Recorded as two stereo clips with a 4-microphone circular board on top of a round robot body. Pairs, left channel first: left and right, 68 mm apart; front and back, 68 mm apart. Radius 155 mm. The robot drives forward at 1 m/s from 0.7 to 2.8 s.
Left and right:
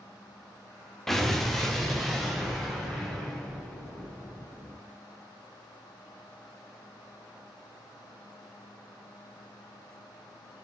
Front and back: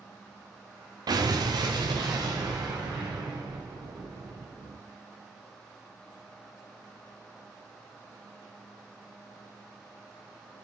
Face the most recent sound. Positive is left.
turn(degrees=180)